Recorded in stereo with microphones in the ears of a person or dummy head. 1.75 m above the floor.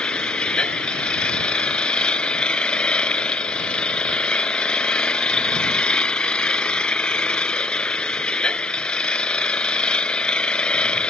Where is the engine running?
5° left (ahead or behind).